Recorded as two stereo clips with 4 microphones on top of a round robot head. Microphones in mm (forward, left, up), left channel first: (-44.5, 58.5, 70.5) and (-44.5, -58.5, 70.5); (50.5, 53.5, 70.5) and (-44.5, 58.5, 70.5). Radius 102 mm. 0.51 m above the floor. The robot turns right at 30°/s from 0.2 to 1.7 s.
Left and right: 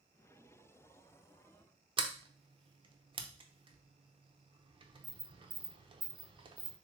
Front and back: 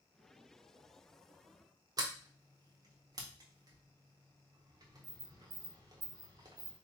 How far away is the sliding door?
About 0.7 m.